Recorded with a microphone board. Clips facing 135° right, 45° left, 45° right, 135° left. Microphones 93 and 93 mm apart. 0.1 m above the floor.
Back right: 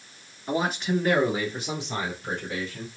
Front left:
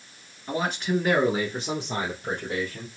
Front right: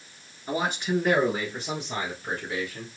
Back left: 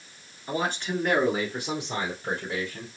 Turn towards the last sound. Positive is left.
turn(degrees=80)